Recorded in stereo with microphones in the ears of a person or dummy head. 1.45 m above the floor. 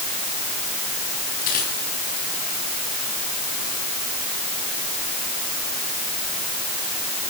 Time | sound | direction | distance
1.4 | a dropped coin | 50° left (ahead or behind) | 9 m